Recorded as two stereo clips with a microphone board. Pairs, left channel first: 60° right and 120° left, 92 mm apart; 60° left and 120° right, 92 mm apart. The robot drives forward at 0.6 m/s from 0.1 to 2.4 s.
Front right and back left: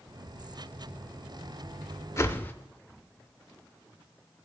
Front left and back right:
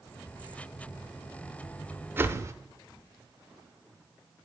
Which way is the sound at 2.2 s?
80° right.